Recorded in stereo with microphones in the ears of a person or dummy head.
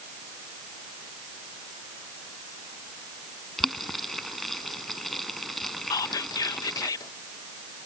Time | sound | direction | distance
3.6 | boiling | centre (ahead or behind) | ?
5.9 | whispering | 25° left (ahead or behind) | ?